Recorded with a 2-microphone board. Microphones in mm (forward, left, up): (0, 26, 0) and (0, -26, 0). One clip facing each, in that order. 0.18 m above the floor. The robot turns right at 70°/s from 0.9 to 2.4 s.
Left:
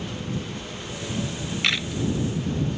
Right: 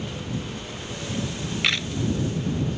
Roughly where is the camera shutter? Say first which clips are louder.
Even; centre.